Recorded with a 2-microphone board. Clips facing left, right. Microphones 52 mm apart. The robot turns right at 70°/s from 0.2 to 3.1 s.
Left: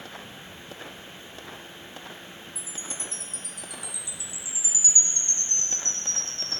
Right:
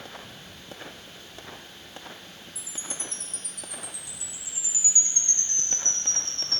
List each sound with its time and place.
2.5 s a chime: 170° right, 5 m; by 6.6 s 130° right, 5 m